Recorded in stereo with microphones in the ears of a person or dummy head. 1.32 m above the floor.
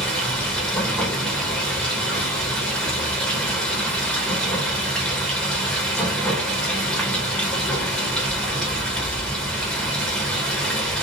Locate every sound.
0.0 s running water: 5° left (ahead or behind), 0.7 m